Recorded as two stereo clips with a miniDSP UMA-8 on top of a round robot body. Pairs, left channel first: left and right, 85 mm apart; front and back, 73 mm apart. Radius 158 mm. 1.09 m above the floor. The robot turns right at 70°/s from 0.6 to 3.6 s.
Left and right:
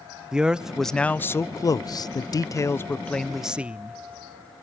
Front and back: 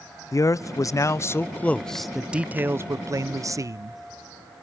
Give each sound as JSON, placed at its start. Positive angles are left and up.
{"t": 0.3, "sound": "a man speaking", "azimuth_deg": -10, "distance_m": 0.5}